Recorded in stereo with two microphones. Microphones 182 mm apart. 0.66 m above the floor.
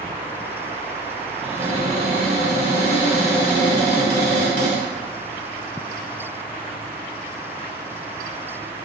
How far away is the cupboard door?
About 1.8 m.